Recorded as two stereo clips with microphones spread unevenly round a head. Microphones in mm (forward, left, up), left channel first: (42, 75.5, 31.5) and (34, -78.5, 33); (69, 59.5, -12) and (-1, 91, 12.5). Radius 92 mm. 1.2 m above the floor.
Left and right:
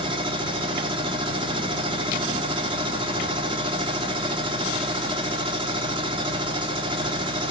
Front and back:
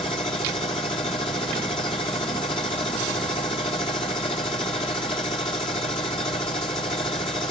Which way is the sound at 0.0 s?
35° right.